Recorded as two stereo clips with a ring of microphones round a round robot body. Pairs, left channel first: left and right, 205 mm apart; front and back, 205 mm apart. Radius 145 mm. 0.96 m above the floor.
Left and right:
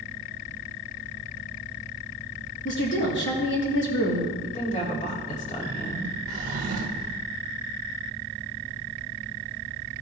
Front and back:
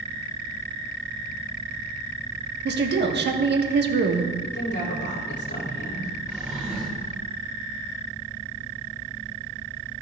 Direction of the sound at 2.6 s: 140° left.